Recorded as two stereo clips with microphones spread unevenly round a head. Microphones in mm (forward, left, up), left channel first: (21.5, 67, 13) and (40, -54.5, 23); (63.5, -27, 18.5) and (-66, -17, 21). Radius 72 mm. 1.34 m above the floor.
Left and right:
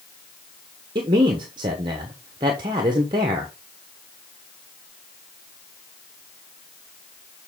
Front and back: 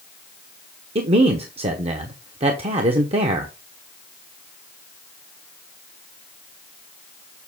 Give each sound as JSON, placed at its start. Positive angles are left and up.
{"t": 0.9, "sound": "a man speaking", "azimuth_deg": -140, "distance_m": 1.0}